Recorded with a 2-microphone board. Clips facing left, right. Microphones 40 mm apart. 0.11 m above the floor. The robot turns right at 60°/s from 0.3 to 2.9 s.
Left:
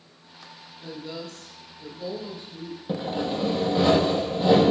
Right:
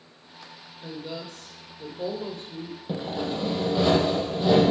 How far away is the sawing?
About 1.1 m.